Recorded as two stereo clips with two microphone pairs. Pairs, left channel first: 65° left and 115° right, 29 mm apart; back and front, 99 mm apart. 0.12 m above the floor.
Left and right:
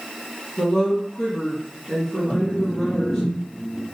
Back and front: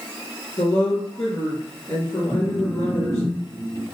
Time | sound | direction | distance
0.6 | a woman speaking | 135° left | 1.7 m
2.3 | a phone buzzing | 110° left | 1.3 m